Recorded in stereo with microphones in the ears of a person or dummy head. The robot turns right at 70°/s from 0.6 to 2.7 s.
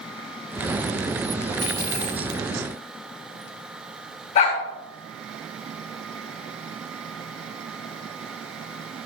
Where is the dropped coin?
35° right, 3.5 m; by 2.4 s 20° left, 3.5 m.